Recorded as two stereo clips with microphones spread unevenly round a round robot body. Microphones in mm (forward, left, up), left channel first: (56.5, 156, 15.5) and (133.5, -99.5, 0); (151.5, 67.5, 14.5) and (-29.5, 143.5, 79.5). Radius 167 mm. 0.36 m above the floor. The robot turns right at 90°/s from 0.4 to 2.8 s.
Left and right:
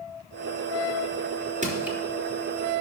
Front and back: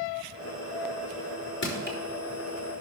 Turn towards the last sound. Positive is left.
turn(degrees=95)